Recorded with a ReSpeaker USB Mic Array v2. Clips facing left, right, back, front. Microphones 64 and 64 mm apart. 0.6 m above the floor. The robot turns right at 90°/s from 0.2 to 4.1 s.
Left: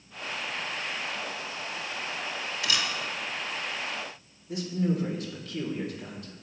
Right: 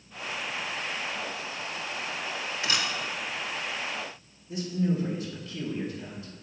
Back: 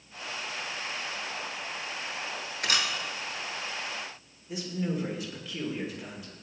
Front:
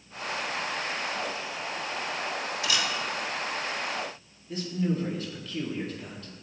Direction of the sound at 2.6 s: 150° right.